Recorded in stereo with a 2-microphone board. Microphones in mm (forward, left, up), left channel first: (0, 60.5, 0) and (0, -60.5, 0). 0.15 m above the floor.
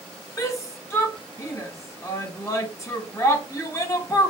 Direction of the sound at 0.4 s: 25° left (ahead or behind).